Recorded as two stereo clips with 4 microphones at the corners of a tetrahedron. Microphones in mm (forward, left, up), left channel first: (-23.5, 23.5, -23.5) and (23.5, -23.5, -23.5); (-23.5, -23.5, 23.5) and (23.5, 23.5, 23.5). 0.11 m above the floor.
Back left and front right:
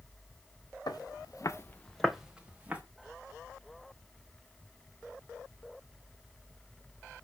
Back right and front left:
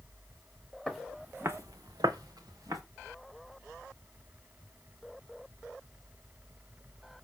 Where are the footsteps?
135° left, 1.2 m; by 2.8 s 20° left, 1.8 m.